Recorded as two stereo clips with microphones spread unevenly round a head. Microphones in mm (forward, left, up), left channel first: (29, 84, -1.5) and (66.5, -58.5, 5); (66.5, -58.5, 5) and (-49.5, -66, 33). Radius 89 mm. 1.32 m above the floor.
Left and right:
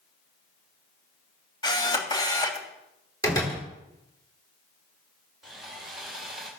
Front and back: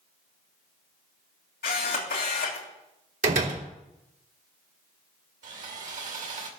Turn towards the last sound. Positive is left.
turn(degrees=-165)